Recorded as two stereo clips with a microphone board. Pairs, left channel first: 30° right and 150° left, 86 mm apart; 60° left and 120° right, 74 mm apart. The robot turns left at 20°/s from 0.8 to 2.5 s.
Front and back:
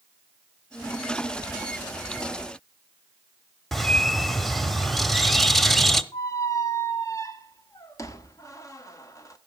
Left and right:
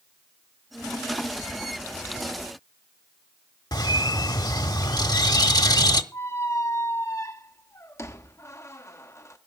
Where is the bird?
60° left, 0.9 m.